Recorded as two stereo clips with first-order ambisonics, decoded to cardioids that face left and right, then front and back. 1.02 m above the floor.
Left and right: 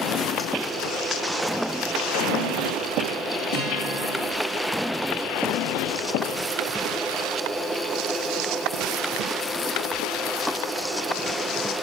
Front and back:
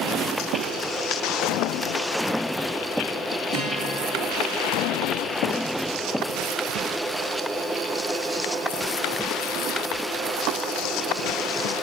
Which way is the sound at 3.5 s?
65° left.